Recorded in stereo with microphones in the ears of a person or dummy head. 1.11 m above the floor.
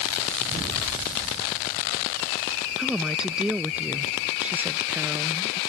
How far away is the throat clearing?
I don't hear throat clearing.